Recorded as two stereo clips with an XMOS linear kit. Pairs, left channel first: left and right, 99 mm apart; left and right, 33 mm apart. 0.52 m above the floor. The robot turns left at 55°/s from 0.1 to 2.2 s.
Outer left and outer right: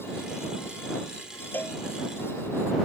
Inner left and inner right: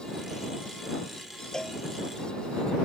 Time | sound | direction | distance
1.5 | a cowbell | 15° left (ahead or behind) | ?